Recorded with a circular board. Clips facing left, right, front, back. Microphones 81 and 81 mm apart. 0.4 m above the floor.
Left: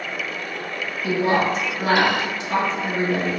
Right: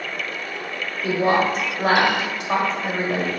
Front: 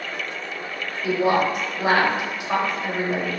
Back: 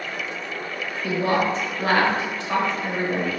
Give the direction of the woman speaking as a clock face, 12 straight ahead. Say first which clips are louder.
Right 1 dB, front 2 dB; 2 o'clock.